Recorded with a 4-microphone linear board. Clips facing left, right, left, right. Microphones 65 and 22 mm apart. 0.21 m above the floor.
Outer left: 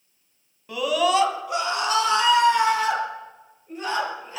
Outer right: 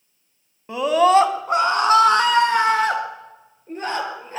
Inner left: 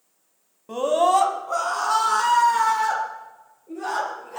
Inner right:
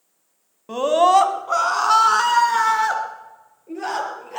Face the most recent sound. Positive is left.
turn(degrees=-45)  # may be behind; listen again after turning